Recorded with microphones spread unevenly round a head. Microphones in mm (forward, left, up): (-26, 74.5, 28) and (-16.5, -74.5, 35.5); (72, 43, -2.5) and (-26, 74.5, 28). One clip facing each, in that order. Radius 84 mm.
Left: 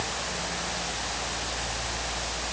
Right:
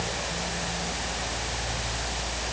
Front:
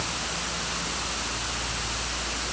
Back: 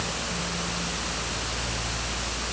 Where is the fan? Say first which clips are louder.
Right 2 dB, back 1 dB; 155° right.